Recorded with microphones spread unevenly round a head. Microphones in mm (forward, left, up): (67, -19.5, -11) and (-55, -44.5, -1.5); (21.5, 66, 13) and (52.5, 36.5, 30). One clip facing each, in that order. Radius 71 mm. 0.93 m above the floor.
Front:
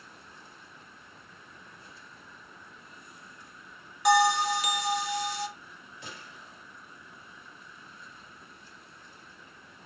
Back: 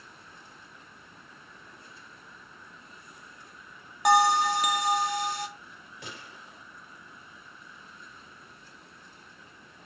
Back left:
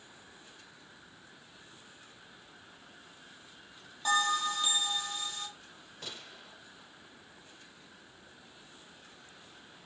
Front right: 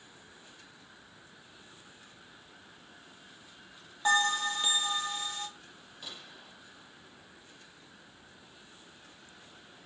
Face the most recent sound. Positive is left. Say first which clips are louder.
# back 2 dB, back left 1 dB
turn(degrees=165)